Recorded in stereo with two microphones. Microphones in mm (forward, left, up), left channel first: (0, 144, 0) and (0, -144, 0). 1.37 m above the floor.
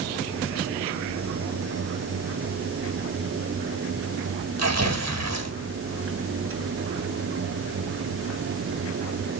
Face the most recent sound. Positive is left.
turn(degrees=-65)  # may be behind; listen again after turning